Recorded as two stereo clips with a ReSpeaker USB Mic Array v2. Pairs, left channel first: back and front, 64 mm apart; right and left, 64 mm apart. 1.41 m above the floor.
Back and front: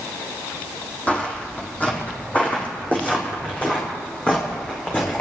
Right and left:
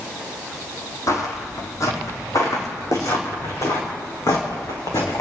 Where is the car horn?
No car horn in this recording.